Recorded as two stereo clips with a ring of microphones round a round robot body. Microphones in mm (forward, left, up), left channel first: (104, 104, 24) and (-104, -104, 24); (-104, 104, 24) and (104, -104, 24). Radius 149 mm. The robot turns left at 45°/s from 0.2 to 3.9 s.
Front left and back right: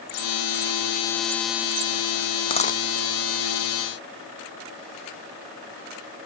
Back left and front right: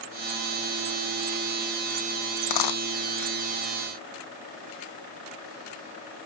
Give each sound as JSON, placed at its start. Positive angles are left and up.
{"t": 2.4, "sound": "a dropped coin", "azimuth_deg": 125}